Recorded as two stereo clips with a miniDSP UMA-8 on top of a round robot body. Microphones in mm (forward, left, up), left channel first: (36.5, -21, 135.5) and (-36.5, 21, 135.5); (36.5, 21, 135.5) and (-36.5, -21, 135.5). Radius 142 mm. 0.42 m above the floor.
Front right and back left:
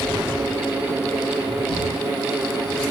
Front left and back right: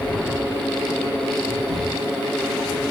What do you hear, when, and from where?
1.7 s a drawer: 30° right, 7 m